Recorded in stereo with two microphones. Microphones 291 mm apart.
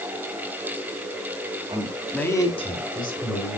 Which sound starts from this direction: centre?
A man speaking, at 1.7 s.